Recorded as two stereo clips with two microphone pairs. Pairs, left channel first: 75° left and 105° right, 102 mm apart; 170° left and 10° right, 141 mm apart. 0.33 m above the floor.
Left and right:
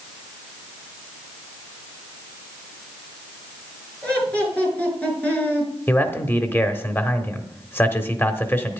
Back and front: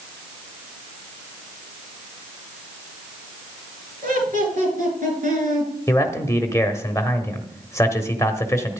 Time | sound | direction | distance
4.0 | laughter | straight ahead | 5.5 m
5.9 | a man speaking | 125° left | 1.0 m